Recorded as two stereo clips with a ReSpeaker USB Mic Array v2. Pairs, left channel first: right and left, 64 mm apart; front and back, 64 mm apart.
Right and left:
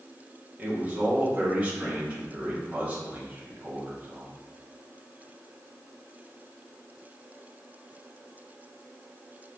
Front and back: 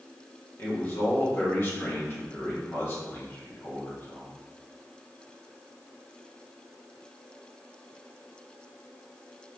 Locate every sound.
0.6 s a man speaking: 30° left, 1.3 m